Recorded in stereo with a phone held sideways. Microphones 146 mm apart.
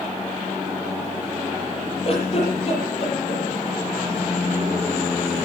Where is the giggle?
45° left (ahead or behind), 9.5 m.